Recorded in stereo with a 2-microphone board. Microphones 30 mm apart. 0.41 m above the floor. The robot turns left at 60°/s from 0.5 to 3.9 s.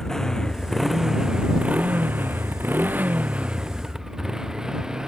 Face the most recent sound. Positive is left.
turn(degrees=-20)  # may be behind; listen again after turning